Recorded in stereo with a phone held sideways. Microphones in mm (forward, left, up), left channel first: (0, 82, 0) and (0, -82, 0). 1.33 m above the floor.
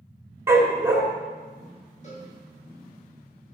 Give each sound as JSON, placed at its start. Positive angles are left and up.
{"t": 0.5, "sound": "a dog barking", "side_deg": -15, "distance_m": 2.0}
{"t": 2.0, "sound": "a cowbell", "side_deg": 50, "distance_m": 6.0}